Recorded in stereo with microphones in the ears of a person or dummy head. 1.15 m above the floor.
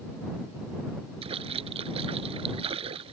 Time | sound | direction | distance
1.2 | a splash | 30° right (ahead or behind) | ?